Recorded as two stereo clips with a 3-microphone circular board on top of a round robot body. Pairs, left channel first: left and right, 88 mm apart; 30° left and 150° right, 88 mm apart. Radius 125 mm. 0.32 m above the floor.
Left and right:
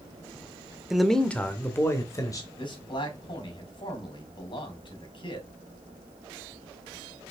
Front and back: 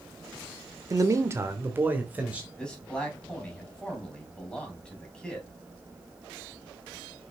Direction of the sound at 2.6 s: 110° left.